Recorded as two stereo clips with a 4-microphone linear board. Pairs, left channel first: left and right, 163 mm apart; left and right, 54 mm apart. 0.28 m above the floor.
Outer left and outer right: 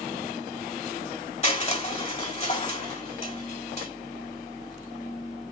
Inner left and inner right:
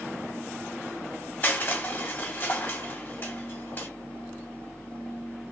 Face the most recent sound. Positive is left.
turn(degrees=40)  # may be behind; listen again after turning